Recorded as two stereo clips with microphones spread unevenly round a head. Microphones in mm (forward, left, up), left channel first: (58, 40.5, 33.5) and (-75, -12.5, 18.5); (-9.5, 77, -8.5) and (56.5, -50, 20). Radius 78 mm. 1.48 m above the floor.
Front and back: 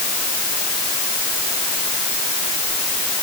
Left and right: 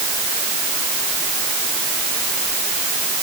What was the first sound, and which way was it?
Only background noise.